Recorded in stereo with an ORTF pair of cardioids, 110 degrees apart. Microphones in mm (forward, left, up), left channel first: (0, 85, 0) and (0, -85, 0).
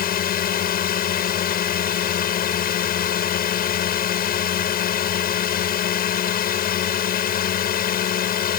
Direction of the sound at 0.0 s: 60° left.